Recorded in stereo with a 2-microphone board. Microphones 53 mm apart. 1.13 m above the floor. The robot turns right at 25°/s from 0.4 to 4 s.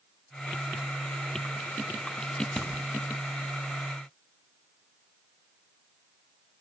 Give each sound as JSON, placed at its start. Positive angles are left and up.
{"t": 2.6, "sound": "a crack", "side_deg": -20, "distance_m": 6.5}